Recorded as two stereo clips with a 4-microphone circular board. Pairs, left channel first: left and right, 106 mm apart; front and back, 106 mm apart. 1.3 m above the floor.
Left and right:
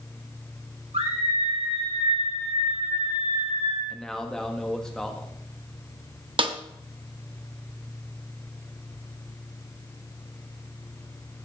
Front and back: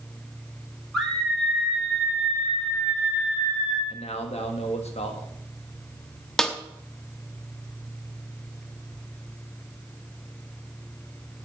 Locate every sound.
0.9 s a scream: 90° right, 4 m
3.9 s a man speaking: 5° left, 1.7 m
6.4 s a snare drum: 85° right, 1.0 m